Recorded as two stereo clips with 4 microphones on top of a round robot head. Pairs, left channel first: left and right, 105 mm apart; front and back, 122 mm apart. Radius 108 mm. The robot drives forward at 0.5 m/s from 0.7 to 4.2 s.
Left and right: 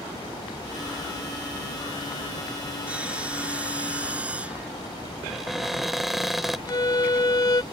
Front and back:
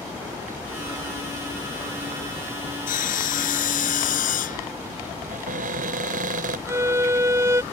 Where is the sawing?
10° right.